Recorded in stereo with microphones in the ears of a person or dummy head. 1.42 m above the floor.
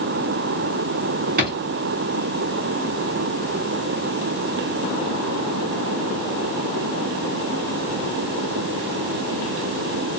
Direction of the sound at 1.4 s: 45° right (ahead or behind).